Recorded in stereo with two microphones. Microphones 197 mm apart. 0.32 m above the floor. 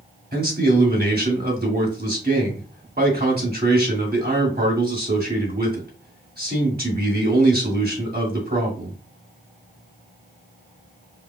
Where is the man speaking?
55° right (ahead or behind), 1.7 m.